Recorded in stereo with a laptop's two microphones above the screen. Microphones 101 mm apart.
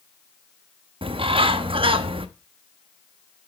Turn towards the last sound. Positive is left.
turn(degrees=-60)  # may be behind; listen again after turning